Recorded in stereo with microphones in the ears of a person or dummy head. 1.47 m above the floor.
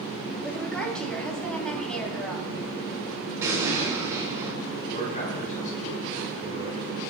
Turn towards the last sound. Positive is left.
turn(degrees=40)  # may be behind; listen again after turning